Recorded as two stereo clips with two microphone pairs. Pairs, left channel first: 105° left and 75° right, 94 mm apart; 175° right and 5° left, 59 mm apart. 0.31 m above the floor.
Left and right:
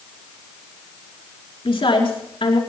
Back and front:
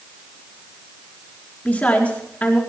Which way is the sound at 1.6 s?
120° left.